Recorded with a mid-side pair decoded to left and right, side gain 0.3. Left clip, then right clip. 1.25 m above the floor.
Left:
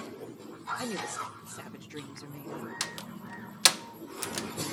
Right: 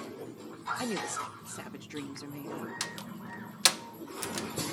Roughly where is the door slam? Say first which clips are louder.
Left 1 dB; ahead left.